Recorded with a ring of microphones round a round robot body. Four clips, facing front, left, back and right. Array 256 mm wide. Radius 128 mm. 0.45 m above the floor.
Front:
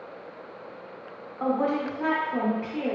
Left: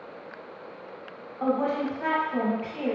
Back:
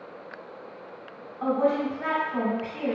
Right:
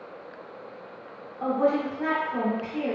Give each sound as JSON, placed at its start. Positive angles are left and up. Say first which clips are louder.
{"t": 1.4, "sound": "a woman speaking", "louder": "right 2 dB, back 2 dB", "azimuth_deg": 15, "distance_m": 1.3}